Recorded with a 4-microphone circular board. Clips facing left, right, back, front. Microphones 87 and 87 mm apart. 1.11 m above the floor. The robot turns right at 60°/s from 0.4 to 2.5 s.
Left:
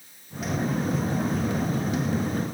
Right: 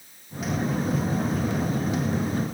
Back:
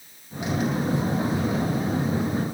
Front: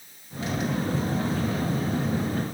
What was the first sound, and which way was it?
Only background noise.